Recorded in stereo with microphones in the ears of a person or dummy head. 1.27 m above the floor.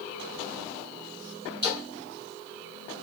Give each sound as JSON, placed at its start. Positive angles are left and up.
{"t": 1.6, "sound": "a splash", "side_deg": -30, "distance_m": 2.0}